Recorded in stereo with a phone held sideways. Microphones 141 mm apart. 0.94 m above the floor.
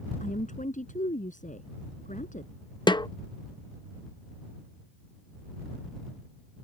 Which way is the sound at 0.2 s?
65° left (ahead or behind).